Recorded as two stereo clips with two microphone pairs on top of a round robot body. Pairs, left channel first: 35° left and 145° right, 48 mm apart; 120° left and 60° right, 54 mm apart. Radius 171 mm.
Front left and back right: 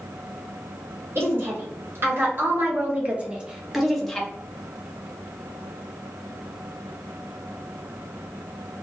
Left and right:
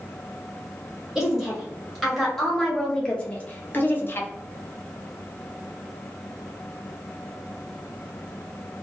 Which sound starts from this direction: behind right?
A woman speaking, at 1.1 s.